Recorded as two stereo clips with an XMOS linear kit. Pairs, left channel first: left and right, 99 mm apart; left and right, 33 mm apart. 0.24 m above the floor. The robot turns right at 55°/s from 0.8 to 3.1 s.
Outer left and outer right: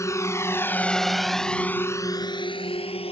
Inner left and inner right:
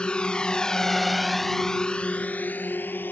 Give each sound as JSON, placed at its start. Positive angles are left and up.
{"t": 0.0, "sound": "a drone", "side_deg": 30}